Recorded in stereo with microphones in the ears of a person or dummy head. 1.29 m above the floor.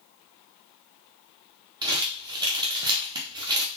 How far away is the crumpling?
About 0.5 m.